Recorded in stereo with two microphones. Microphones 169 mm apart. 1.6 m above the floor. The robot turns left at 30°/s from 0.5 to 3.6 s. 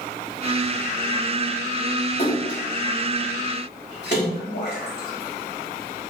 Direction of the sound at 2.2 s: 50° left (ahead or behind).